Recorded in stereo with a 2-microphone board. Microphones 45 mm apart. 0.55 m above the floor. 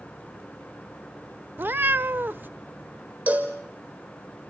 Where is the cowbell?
50° right (ahead or behind), 4.5 m.